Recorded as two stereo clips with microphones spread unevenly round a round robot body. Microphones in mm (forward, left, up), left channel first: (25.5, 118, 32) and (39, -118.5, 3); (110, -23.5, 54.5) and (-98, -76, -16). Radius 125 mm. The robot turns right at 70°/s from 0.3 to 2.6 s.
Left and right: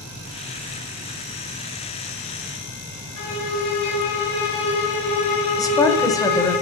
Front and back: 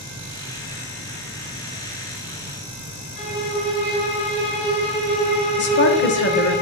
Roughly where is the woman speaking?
Ahead.